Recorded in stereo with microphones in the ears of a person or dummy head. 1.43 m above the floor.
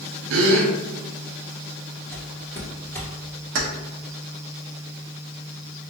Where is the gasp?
75° right (ahead or behind), 0.8 m.